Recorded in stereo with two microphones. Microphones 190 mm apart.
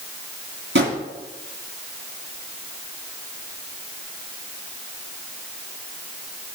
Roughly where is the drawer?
Right.